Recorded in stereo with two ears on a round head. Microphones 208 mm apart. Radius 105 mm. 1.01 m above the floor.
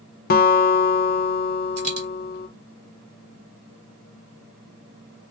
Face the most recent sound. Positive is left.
turn(degrees=-30)  # may be behind; listen again after turning